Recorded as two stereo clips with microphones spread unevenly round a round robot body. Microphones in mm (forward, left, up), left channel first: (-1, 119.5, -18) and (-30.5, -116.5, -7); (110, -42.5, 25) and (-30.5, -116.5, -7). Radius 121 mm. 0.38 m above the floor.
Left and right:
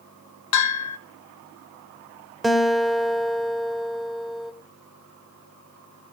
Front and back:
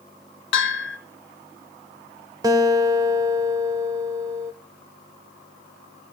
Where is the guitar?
170° left, 0.8 m.